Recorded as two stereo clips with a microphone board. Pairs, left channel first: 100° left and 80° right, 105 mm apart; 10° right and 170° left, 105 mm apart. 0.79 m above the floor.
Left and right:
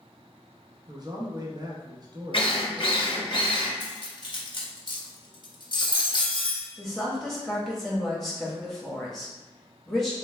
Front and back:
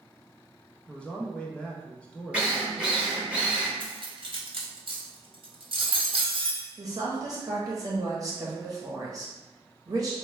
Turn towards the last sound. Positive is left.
turn(degrees=-175)